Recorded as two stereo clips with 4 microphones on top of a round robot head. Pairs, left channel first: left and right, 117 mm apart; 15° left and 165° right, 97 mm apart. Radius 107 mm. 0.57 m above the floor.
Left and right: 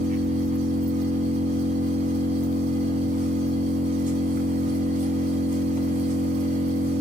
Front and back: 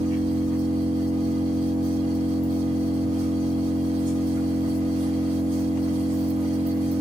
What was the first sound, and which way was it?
An engine running, 110° right.